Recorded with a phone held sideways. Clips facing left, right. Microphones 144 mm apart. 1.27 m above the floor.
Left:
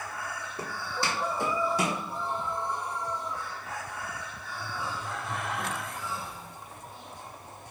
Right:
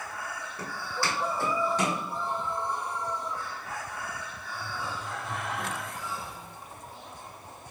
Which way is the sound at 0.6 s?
30° left (ahead or behind).